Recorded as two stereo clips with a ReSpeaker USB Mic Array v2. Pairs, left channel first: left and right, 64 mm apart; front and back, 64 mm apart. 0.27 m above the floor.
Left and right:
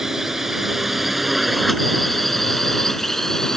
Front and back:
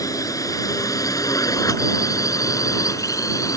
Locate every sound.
0.0 s a drone: 10° right; by 3.6 s 5° left